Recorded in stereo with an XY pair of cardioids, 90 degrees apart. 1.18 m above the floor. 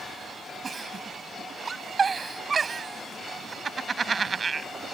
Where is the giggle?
40° right.